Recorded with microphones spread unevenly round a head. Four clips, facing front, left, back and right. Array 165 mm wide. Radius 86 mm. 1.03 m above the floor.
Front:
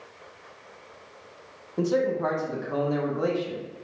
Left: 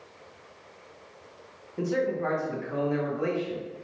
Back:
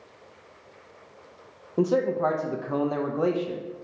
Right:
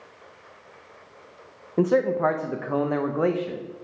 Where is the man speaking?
115° right, 0.9 m.